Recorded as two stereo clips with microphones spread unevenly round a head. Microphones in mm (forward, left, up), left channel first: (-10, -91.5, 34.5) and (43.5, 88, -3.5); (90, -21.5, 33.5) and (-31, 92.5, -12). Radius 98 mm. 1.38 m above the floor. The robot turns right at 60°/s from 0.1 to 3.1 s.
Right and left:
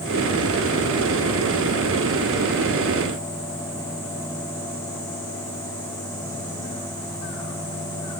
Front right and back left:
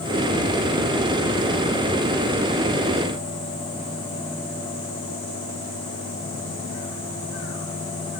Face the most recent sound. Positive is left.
No sound to turn to.